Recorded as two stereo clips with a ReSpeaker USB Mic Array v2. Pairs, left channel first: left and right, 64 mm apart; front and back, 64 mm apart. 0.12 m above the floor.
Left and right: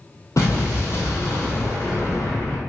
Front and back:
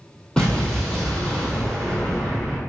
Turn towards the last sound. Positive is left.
turn(degrees=75)